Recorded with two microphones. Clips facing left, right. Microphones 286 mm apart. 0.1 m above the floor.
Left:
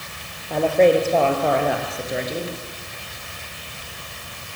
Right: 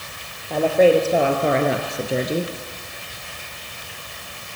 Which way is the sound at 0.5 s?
Centre (ahead or behind).